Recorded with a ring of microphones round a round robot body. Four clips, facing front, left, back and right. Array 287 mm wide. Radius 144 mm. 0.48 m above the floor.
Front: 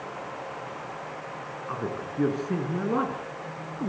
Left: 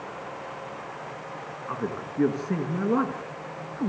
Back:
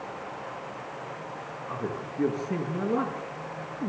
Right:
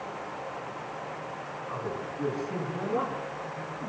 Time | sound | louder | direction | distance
1.7 | a man speaking | left 4 dB, front 1 dB | 55° left | 5 m